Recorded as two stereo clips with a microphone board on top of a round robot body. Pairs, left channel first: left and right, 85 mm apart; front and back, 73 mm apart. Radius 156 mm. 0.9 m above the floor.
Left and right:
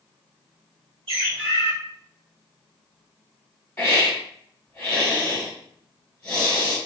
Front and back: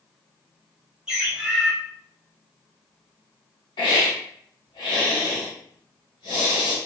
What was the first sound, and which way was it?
A bird, 100° right.